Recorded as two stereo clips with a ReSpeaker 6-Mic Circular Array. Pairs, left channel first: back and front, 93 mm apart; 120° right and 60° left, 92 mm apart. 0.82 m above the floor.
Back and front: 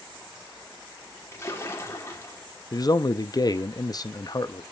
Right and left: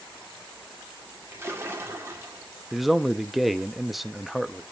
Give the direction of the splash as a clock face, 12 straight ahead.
8 o'clock.